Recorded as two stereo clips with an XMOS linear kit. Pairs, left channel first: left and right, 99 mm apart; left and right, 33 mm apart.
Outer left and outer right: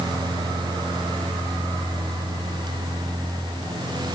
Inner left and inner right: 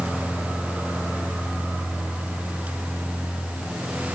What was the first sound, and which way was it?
Only background noise.